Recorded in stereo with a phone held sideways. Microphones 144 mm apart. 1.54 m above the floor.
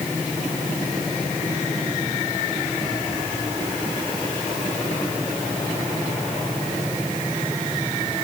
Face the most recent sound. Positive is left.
No sound to turn to.